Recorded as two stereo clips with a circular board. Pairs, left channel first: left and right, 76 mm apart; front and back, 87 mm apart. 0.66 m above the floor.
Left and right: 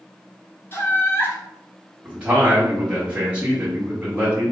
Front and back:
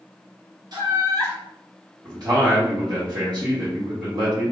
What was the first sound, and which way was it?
Laughter, 145° left.